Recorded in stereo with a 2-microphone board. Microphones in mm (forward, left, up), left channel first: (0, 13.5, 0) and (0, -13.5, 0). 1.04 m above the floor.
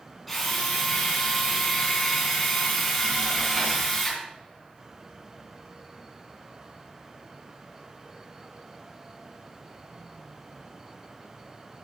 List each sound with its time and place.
0.3 s a drill: 5° right (ahead or behind), 3.5 m